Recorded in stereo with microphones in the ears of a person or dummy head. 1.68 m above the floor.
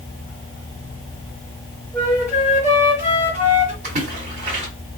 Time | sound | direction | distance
1.9 | a flute | 5° right (ahead or behind) | 2 m
3.8 | a splash | 40° right (ahead or behind) | 2 m